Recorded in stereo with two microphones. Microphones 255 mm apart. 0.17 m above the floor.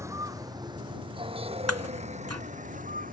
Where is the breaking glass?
70° right (ahead or behind).